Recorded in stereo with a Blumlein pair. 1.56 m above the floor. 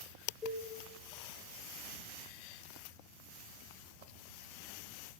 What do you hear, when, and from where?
0.4 s a cowbell: 20° left, 1.0 m